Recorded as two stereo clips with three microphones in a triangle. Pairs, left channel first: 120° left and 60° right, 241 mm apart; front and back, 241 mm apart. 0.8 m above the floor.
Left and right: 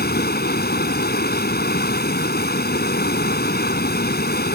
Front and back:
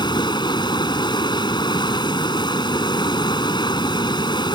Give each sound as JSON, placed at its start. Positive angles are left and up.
{"t": 0.0, "sound": "running water", "azimuth_deg": 70}